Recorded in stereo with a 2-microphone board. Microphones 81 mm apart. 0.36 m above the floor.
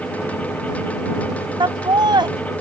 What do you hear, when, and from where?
1.6 s laughter: 65° right (ahead or behind)